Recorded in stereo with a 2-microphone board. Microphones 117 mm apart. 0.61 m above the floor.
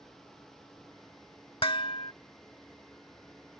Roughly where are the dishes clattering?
Left.